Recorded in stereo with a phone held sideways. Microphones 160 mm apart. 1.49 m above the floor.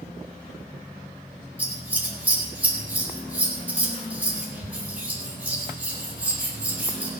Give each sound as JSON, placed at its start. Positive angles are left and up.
{"t": 1.6, "sound": "scissors", "side_deg": -10, "distance_m": 3.0}